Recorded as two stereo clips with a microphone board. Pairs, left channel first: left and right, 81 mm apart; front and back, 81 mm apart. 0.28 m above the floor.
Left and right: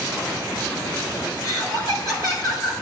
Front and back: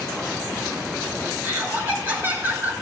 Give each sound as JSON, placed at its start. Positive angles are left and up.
{"t": 1.4, "sound": "laughter", "azimuth_deg": 115, "distance_m": 4.0}